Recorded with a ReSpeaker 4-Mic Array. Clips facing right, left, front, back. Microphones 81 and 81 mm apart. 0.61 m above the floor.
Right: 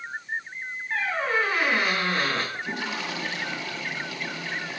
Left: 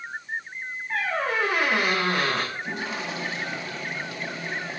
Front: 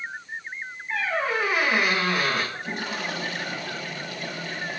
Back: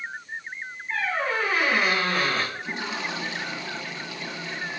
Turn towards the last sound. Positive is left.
turn(degrees=45)